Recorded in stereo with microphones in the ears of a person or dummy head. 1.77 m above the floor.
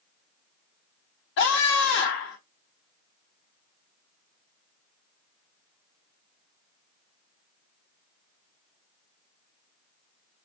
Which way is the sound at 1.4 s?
60° left (ahead or behind).